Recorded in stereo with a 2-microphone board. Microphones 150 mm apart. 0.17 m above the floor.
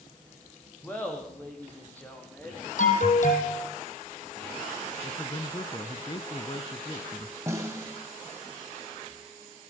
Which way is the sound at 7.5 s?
20° right (ahead or behind).